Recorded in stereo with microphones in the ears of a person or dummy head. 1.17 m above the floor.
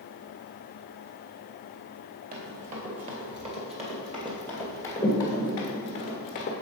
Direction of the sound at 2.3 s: 40° right (ahead or behind).